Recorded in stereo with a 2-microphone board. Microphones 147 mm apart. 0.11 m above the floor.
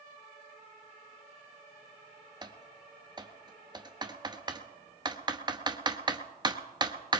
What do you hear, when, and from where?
2.4 s typing on a keyboard: 30° right (ahead or behind), 0.8 m